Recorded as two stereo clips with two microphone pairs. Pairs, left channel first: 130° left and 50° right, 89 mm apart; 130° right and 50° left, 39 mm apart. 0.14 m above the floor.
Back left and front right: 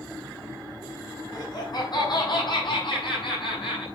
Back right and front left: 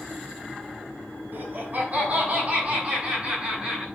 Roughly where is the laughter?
Left.